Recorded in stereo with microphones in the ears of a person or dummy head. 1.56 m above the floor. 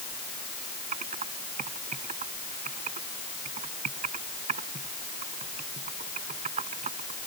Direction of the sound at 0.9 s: 35° right (ahead or behind).